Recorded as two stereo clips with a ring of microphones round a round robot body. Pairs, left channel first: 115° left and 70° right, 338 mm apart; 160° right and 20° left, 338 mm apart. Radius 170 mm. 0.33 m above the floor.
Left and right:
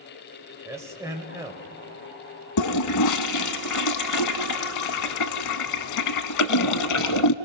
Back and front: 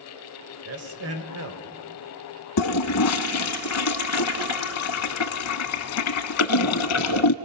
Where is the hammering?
I don't hear hammering.